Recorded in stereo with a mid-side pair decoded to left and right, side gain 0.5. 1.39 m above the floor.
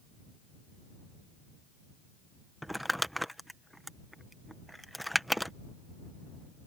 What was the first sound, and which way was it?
Crumpling, straight ahead.